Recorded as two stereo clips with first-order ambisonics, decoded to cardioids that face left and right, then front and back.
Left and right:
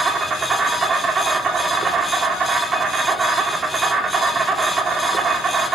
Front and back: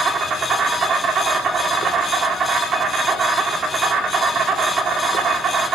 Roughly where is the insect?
Behind right.